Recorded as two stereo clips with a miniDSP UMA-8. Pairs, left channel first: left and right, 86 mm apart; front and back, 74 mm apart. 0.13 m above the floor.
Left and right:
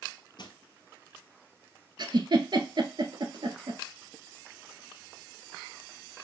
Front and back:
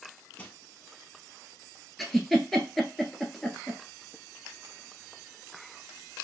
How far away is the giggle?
About 0.9 m.